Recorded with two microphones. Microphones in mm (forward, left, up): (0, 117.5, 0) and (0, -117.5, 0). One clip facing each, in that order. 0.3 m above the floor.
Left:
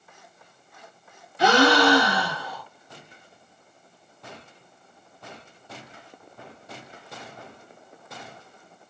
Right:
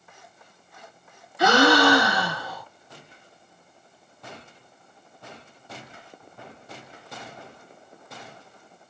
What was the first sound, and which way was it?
A gasp, 30° left (ahead or behind).